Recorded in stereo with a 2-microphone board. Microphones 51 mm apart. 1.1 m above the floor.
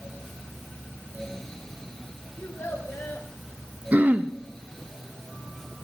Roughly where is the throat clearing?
Right.